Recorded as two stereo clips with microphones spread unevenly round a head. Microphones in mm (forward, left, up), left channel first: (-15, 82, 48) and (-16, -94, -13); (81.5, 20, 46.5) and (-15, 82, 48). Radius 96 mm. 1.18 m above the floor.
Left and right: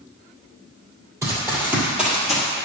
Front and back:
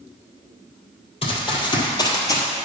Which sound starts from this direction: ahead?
Running footsteps, at 1.2 s.